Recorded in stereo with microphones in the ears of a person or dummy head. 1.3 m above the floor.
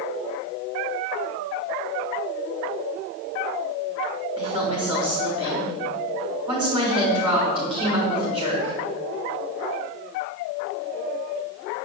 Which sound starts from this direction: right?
A woman speaking, at 4.4 s.